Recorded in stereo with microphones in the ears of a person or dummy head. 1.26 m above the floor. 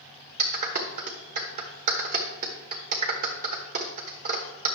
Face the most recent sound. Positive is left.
turn(degrees=-40)  # may be behind; listen again after turning